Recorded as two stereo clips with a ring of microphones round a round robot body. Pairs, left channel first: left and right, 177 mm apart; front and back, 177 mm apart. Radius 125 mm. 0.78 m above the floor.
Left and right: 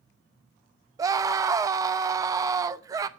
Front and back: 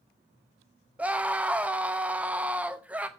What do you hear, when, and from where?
1.0 s a scream: 115° right, 0.7 m